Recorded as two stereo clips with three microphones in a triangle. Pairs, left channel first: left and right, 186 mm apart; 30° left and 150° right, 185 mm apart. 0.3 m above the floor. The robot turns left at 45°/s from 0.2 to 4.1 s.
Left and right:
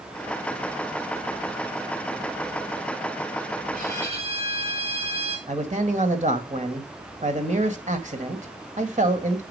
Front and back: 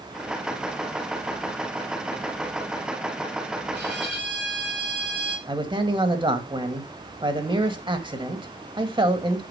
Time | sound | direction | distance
3.7 | a violin | 130° right | 3.5 m
5.5 | a man speaking | 100° right | 1.7 m